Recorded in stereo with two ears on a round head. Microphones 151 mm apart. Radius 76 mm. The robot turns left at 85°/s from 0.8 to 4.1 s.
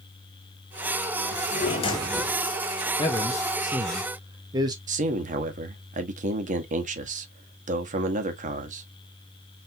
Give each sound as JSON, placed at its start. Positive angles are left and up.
{"t": 1.3, "sound": "a drawer", "azimuth_deg": 75, "distance_m": 1.2}
{"t": 3.0, "sound": "a man speaking", "side_deg": 30, "distance_m": 0.9}
{"t": 4.9, "sound": "a man speaking", "side_deg": -45, "distance_m": 1.0}